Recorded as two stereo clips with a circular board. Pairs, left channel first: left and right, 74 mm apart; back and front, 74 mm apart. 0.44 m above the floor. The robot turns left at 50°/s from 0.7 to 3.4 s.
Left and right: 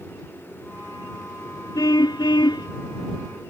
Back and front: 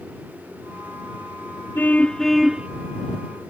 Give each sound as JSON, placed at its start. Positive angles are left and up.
{"t": 1.8, "sound": "a car horn", "azimuth_deg": 120}